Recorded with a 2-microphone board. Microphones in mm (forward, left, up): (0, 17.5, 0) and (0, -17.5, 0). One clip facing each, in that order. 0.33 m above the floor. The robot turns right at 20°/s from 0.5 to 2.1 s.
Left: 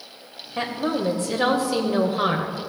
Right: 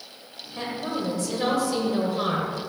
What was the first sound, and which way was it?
A woman speaking, 100° left.